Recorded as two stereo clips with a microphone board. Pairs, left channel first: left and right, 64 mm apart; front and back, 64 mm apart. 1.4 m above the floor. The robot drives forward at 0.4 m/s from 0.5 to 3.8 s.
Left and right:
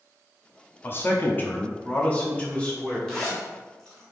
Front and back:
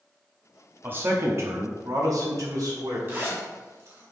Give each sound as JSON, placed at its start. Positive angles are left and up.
{"t": 0.8, "sound": "a man speaking", "azimuth_deg": 130, "distance_m": 0.6}
{"t": 3.1, "sound": "a zipper", "azimuth_deg": 165, "distance_m": 1.6}